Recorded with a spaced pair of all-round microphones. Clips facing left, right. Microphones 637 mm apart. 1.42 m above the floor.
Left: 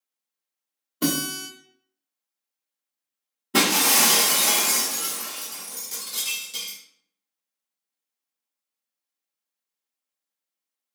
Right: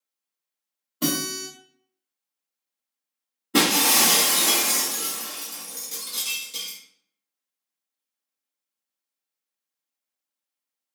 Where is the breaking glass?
20° left (ahead or behind), 0.7 m.